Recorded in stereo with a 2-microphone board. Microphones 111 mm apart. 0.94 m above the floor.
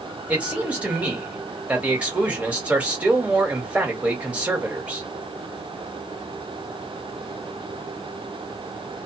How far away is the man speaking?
About 1.4 m.